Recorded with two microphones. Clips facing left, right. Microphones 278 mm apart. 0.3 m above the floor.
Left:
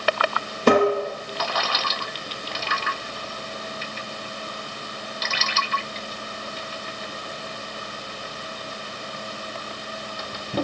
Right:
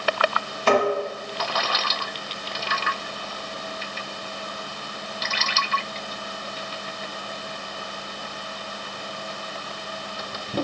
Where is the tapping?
45° left (ahead or behind), 1.2 m.